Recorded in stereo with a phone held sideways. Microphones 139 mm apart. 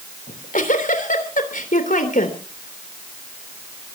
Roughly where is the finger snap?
I don't hear a finger snap.